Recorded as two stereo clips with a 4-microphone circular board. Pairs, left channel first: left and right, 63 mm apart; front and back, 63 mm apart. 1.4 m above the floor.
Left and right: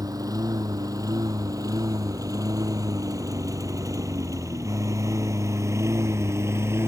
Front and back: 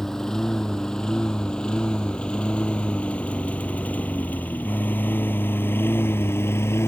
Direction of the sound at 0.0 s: 80° right.